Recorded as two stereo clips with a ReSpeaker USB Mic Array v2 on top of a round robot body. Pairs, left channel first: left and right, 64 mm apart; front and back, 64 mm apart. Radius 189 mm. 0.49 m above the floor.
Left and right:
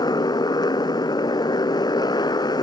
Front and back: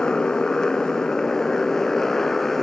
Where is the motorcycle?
80° left; by 2.6 s 85° left.